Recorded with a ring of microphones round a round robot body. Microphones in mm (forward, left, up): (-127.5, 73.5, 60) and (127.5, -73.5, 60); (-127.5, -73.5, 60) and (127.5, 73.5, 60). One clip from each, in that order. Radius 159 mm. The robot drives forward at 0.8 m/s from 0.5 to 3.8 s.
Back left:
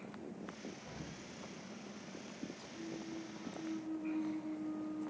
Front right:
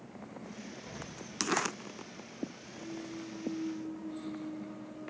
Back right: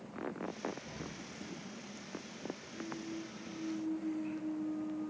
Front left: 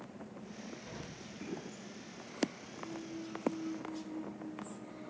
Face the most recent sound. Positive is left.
turn(degrees=130)